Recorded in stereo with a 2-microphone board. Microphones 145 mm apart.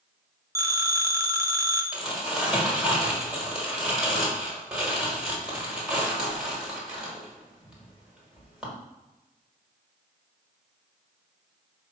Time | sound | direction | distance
0.6 | a phone ringing | 20° right (ahead or behind) | 0.9 m
1.9 | crumpling | 5° right (ahead or behind) | 1.3 m